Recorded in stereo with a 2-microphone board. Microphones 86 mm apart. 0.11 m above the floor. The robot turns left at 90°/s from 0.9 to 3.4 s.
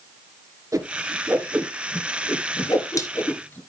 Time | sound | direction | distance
0.7 | a whoosh | 40° right (ahead or behind) | 1.8 m